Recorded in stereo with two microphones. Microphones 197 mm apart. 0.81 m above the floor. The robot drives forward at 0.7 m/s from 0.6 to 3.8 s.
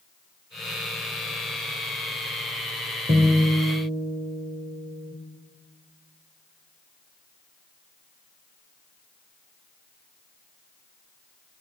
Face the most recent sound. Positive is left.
turn(degrees=-35)  # may be behind; listen again after turning